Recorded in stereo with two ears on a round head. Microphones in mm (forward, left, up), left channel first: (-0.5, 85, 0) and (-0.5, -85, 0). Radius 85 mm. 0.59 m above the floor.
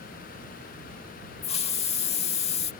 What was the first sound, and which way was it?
A hiss, 35° left (ahead or behind).